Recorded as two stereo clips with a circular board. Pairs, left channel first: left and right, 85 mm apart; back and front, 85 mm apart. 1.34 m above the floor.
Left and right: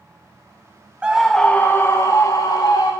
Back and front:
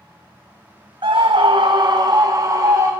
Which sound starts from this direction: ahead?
A scream, at 1.0 s.